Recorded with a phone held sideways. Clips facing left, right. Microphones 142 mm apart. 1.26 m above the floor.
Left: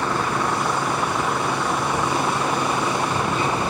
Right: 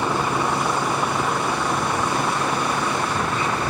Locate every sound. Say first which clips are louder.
0.0 s a vehicle: right 1 dB; 10° right (ahead or behind); by 3.7 s 15° left (ahead or behind)